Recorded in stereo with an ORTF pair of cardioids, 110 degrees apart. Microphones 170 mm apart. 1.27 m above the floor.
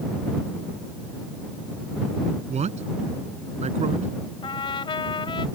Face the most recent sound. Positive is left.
turn(degrees=30)